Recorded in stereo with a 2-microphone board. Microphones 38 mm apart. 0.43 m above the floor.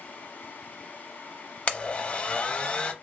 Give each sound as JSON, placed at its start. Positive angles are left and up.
{"t": 1.7, "sound": "a blender", "side_deg": 35, "distance_m": 0.5}